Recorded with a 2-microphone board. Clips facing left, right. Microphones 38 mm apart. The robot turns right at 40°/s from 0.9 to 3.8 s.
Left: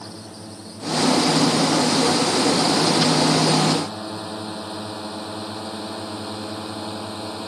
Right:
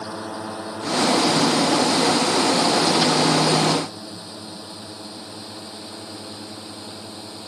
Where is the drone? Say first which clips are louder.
Right 7 dB; 75° right (ahead or behind); by 7.5 s 35° left (ahead or behind).